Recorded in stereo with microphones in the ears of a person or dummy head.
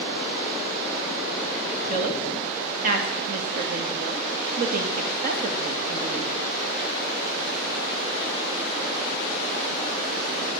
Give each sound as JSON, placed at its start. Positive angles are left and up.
{"t": 1.9, "sound": "a woman speaking", "side_deg": -45, "distance_m": 2.0}